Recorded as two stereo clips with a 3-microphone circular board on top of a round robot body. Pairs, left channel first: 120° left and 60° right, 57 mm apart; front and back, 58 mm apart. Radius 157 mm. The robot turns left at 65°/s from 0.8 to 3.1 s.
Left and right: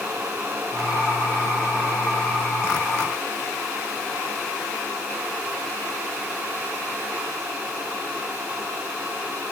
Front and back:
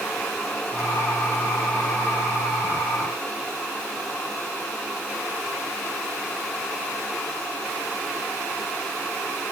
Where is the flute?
I don't hear a flute.